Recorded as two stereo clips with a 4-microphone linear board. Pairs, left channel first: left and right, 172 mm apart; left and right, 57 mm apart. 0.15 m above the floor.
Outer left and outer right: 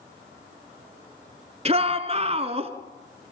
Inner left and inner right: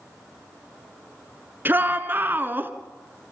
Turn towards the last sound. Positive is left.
turn(degrees=-35)  # may be behind; listen again after turning